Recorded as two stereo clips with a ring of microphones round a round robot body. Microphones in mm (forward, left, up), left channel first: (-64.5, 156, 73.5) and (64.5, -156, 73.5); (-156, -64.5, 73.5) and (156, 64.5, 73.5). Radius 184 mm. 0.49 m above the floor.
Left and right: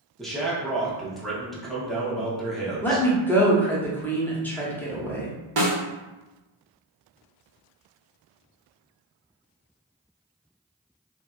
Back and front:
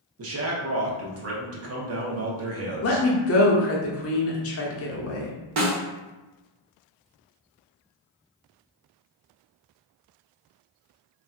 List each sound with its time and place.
0.2 s a man speaking: 25° left, 0.8 m
2.8 s a woman speaking: 165° right, 0.8 m
5.6 s a snare drum: 20° right, 0.8 m